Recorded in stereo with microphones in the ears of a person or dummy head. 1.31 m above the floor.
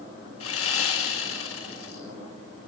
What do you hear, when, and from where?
0.4 s sawing: 90° left, 6 m